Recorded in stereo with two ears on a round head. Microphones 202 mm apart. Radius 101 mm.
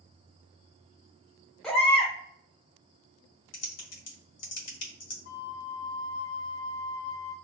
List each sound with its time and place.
1.6 s a baby crying: 5° left (ahead or behind), 1.0 m
3.5 s typing on a keyboard: 80° left, 1.0 m
5.2 s a flute: 50° left (ahead or behind), 0.6 m